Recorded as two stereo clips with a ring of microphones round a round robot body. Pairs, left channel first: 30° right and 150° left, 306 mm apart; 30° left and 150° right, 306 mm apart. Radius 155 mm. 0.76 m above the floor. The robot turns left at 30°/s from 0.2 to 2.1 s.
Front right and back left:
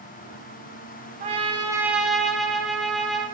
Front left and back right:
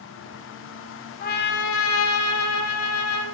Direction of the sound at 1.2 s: 85° left.